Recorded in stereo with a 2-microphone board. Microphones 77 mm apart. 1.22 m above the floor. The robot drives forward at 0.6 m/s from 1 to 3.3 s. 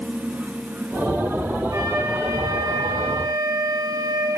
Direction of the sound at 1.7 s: 40° right (ahead or behind).